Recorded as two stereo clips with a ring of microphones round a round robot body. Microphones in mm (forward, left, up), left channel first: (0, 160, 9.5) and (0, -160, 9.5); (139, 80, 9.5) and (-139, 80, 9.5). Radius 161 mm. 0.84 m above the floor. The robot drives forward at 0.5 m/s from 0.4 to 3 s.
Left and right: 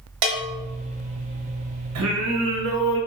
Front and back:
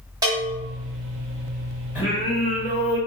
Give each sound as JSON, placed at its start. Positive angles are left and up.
{"t": 0.2, "sound": "a bell", "azimuth_deg": -105, "distance_m": 1.0}
{"t": 1.9, "sound": "singing", "azimuth_deg": -100, "distance_m": 0.9}